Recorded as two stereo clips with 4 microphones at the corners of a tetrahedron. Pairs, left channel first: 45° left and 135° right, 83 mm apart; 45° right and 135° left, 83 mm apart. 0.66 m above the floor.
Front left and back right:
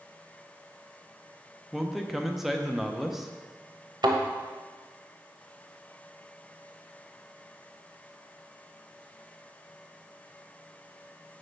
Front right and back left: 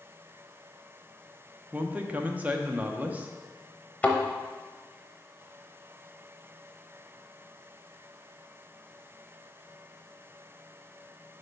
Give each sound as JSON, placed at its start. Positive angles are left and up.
{"t": 1.7, "sound": "a man speaking", "azimuth_deg": 140, "distance_m": 0.6}
{"t": 4.0, "sound": "a thud", "azimuth_deg": -115, "distance_m": 0.9}